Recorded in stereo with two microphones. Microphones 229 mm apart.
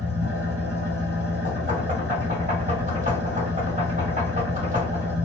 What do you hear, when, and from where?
0.0 s an engine running: 80° right, 1.1 m
1.4 s knocking: 35° right (ahead or behind), 1.7 m